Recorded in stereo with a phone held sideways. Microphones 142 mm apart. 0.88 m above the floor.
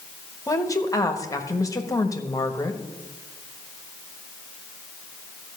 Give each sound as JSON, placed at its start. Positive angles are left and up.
{"t": 0.5, "sound": "a woman speaking", "side_deg": 25, "distance_m": 1.3}